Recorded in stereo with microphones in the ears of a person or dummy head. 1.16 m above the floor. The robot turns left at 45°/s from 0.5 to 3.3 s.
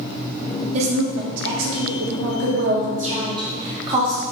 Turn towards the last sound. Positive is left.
turn(degrees=-160)